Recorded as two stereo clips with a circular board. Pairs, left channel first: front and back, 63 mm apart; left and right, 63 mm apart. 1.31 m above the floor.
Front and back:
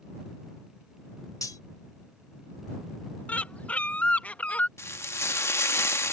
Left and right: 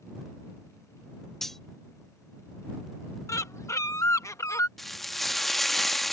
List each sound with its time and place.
1.4 s cutlery clinking: 5° left
3.3 s a bird: 65° left
4.8 s frying: straight ahead